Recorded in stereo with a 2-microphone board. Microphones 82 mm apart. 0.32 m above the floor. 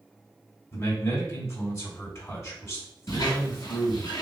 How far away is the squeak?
About 1.5 m.